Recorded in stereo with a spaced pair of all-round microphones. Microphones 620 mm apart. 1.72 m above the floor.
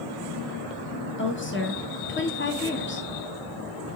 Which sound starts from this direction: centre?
A woman speaking, at 1.2 s.